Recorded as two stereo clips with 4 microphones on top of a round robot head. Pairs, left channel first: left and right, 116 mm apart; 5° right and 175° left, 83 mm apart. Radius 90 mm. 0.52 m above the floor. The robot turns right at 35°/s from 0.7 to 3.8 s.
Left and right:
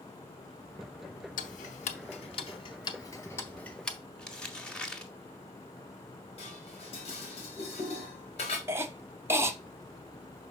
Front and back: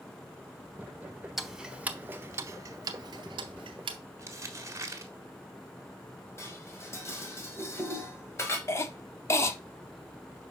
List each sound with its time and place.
1.4 s ticking: 85° left, 0.6 m; by 4.0 s 170° left, 0.6 m
4.2 s crumpling: 170° left, 1.4 m
6.4 s dishes clattering: 50° left, 1.9 m
8.7 s a cough: 35° right, 0.9 m